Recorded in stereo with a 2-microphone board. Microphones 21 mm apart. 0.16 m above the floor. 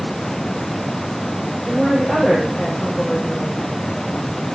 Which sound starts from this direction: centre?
A woman speaking, at 1.6 s.